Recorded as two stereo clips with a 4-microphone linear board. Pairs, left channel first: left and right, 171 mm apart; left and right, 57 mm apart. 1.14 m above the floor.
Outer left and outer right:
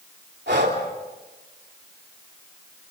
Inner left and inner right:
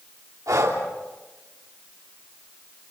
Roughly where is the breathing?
Right.